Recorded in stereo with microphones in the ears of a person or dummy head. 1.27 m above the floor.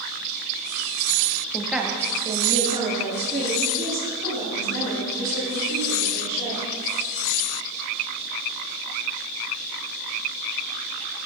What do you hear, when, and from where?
1.5 s a woman speaking: 5° left (ahead or behind), 0.7 m; by 6.7 s 50° right (ahead or behind), 4 m